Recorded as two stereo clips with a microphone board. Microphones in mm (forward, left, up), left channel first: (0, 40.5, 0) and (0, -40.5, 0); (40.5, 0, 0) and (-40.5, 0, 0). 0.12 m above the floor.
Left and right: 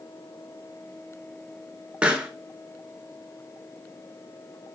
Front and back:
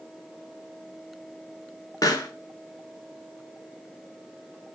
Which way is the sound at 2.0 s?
15° right.